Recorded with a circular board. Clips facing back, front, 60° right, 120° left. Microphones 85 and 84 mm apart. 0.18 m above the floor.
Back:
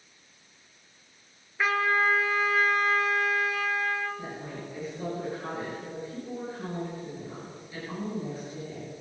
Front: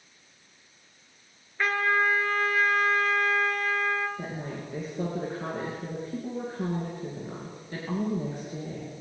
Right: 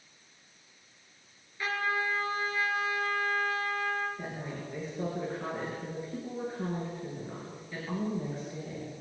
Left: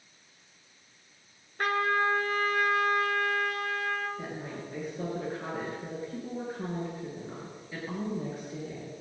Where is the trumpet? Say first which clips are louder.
Even, left 5 dB; 95° left, 1.7 m.